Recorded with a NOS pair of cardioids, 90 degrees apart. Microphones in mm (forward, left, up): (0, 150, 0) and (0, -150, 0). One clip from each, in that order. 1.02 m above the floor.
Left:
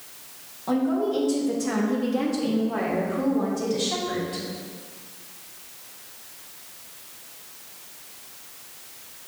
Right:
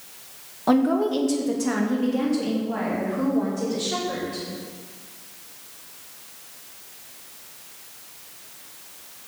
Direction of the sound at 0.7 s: 55° right.